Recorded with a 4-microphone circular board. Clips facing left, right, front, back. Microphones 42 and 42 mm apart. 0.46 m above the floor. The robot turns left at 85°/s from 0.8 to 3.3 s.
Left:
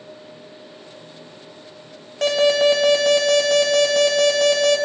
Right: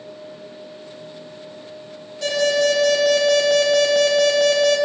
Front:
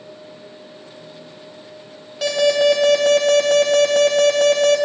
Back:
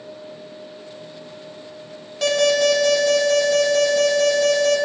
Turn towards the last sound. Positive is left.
turn(degrees=-10)